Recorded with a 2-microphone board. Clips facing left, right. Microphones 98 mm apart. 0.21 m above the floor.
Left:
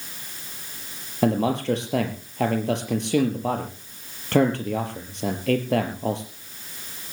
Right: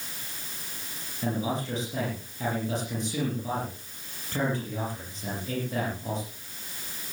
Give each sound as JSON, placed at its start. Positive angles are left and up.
{"t": 1.2, "sound": "a man speaking", "side_deg": 70, "distance_m": 4.0}